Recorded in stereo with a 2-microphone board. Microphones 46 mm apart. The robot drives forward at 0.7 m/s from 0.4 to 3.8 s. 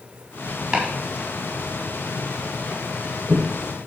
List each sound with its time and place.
0.7 s chopping: 15° right (ahead or behind), 2.5 m; by 3.4 s 30° right (ahead or behind), 1.3 m